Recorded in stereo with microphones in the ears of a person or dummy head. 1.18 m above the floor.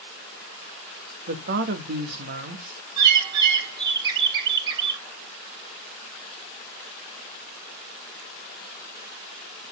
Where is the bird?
20° right (ahead or behind), 2 m.